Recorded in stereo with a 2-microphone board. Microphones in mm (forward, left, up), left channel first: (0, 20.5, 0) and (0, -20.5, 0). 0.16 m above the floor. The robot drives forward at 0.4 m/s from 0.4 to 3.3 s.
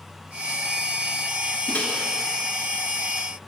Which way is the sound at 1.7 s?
30° left (ahead or behind).